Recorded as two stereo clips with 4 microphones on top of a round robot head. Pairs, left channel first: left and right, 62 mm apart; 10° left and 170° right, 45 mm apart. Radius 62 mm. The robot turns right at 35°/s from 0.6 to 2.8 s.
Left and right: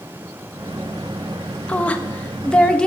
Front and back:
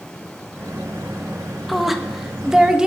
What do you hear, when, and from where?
1.7 s a woman speaking: 100° left, 0.5 m; by 2.9 s 135° left, 0.5 m